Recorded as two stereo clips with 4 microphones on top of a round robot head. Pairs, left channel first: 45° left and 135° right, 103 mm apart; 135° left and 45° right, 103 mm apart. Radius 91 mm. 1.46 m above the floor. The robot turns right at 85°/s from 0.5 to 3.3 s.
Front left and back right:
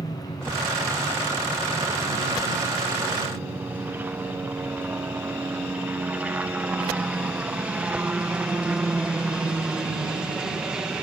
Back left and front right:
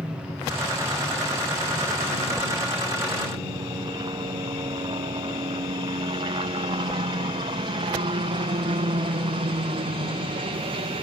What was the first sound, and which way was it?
A helicopter, 30° left.